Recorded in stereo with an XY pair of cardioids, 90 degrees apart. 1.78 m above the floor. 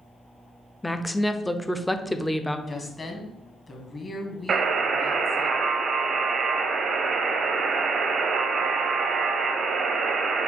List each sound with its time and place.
0.8 s a woman speaking: 10° left, 0.5 m
2.7 s a woman speaking: 35° left, 1.3 m
4.5 s a buzzer: 60° right, 0.7 m